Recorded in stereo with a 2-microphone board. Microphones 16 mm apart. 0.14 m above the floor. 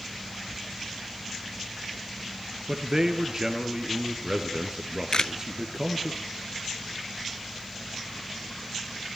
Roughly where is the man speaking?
Right.